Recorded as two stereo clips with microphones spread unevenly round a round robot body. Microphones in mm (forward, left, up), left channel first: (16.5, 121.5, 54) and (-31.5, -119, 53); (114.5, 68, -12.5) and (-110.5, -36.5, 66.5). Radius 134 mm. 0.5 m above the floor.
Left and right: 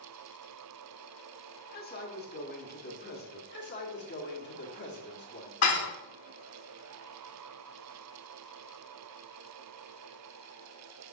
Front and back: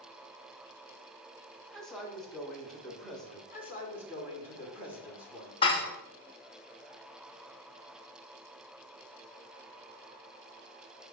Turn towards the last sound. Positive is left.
turn(degrees=80)